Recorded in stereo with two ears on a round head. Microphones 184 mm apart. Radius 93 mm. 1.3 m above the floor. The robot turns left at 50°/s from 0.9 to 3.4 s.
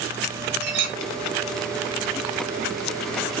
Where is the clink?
60° right (ahead or behind), 0.9 m.